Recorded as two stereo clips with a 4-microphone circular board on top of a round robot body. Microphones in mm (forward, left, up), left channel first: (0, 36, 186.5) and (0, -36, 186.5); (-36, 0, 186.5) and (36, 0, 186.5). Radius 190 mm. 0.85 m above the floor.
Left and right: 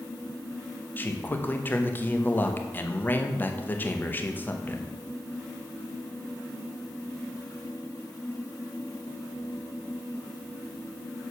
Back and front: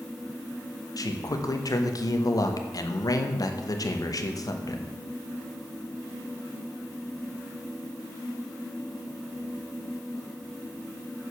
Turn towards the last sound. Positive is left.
turn(degrees=150)